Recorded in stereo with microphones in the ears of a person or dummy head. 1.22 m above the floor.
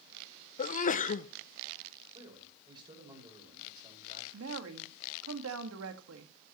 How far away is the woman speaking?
About 1.8 m.